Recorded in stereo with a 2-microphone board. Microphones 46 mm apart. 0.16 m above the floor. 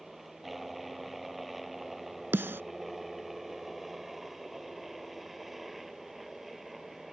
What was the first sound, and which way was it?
A helicopter, centre (ahead or behind).